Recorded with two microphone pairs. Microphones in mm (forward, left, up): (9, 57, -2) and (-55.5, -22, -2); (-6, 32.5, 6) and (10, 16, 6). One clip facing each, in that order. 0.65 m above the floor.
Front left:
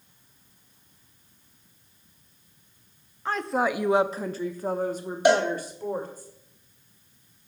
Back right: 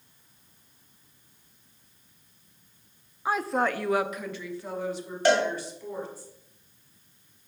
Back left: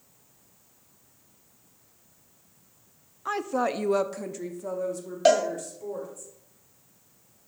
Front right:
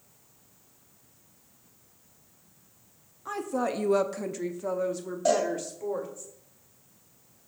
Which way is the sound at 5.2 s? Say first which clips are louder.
Front left 2 dB, back left 4 dB; 125° left.